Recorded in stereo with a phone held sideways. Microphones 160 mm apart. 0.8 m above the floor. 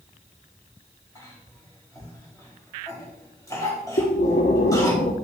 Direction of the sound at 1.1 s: 20° left (ahead or behind).